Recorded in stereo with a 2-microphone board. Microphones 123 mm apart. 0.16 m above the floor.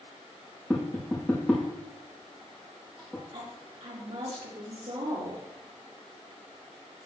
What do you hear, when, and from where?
0.7 s tapping: 5° left (ahead or behind), 5 m
3.3 s a woman speaking: 65° right (ahead or behind), 5 m